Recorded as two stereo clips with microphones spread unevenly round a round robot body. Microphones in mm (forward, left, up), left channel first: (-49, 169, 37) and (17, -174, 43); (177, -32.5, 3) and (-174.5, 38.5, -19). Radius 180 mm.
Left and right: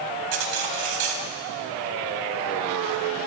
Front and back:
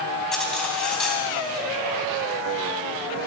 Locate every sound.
0.3 s cutlery clinking: 100° right, 3.5 m